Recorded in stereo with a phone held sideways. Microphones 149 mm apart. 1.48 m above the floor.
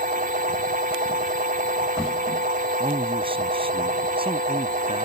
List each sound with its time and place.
0.0 s a machine running: 70° right (ahead or behind)
2.8 s a man speaking: 40° right (ahead or behind)